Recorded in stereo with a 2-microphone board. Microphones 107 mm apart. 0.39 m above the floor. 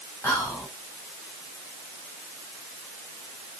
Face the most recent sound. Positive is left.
turn(degrees=30)  # may be behind; listen again after turning